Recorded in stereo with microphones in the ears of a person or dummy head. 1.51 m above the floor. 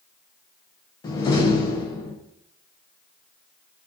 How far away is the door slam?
About 0.5 m.